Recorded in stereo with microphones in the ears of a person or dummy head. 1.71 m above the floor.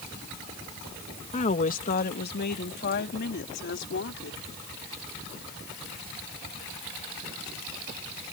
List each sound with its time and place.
1.3 s a woman speaking: 35° left (ahead or behind); by 4.4 s 65° left (ahead or behind)